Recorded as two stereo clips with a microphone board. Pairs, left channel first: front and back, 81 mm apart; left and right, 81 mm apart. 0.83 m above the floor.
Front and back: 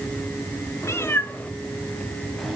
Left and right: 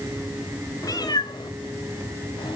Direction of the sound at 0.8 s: 50° left.